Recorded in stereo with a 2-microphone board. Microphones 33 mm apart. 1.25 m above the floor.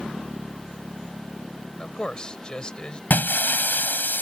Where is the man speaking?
30° left (ahead or behind).